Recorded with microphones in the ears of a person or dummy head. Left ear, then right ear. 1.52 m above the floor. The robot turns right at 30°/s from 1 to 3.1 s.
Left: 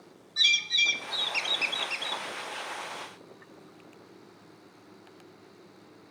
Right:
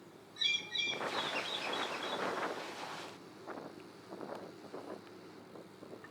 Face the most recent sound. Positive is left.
turn(degrees=115)